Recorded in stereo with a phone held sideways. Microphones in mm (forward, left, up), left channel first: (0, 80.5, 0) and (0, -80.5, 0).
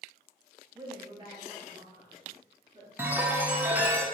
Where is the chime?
10° right (ahead or behind), 0.6 m.